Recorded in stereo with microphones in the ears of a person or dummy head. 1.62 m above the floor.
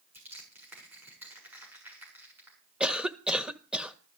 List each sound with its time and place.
0.1 s crushing: 10° right (ahead or behind), 7.5 m
2.8 s a cough: 5° right (ahead or behind), 1.3 m